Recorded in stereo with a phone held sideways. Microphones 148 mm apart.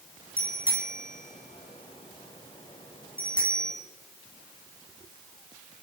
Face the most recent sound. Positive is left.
turn(degrees=35)  # may be behind; listen again after turning